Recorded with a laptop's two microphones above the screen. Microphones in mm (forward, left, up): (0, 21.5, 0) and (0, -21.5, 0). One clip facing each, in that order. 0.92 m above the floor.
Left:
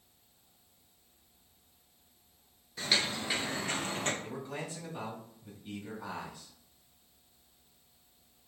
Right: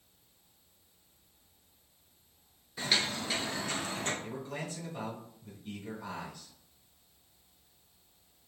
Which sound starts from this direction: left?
A man speaking, at 4.2 s.